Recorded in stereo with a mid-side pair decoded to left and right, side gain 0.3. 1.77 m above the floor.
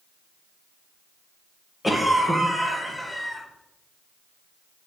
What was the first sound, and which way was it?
A cough, 15° left.